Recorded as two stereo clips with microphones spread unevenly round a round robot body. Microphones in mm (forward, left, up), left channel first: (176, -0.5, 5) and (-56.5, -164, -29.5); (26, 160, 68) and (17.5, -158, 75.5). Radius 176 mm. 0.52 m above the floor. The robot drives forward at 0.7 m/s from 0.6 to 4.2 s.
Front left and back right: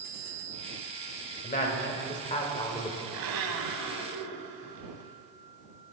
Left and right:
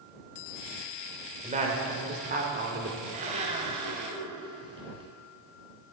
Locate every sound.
1.4 s a woman speaking: 25° right, 2.5 m; by 3.0 s 40° right, 1.9 m
3.1 s a blender: 160° right, 1.4 m; by 5.1 s 165° right, 2 m